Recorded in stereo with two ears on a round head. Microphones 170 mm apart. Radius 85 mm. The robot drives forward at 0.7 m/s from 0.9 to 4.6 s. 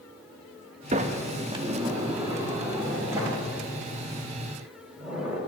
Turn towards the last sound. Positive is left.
turn(degrees=-10)  # may be behind; listen again after turning